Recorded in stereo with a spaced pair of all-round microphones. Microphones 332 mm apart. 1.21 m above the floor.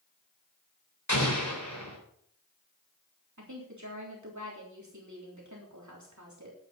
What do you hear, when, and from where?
1.1 s an explosion: 55° left (ahead or behind), 4 m
3.4 s a woman speaking: 60° right (ahead or behind), 3.5 m